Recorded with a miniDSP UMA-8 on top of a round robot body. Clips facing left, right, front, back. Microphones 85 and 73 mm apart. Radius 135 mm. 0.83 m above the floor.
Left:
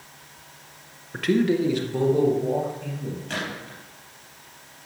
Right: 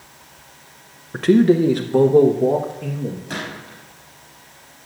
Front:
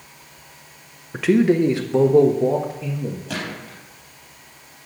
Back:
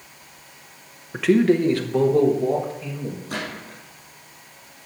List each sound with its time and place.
1.1 s a man speaking: 90° right, 0.8 m; by 3.2 s 60° right, 1.7 m
3.3 s a gunshot: 5° right, 4 m